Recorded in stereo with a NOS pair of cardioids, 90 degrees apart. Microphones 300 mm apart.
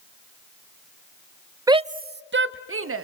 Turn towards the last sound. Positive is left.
turn(degrees=-45)